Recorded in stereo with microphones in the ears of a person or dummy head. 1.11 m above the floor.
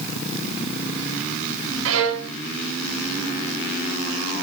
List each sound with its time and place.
1.9 s a violin: 75° right (ahead or behind), 1.7 m